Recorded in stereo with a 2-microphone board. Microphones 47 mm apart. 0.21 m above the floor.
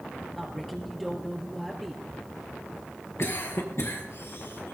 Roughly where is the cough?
Left.